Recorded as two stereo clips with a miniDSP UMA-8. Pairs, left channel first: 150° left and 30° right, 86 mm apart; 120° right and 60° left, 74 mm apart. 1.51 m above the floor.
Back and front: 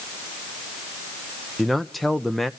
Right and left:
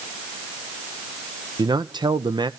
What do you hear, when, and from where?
1.6 s a man speaking: 60° left, 0.7 m